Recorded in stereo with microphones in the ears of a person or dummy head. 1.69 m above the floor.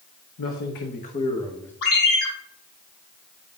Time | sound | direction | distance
0.4 | a man speaking | 70° left (ahead or behind) | 1.0 m
1.8 | a ringtone | 70° left (ahead or behind) | 3.5 m